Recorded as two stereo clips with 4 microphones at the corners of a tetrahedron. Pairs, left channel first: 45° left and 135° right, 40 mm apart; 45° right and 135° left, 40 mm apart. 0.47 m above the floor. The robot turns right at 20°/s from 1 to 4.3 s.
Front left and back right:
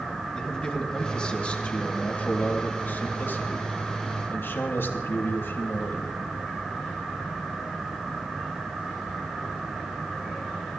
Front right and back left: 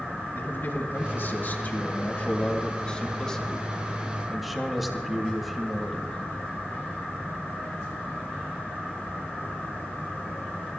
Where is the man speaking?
20° right, 3 m; by 6.2 s 45° left, 3 m.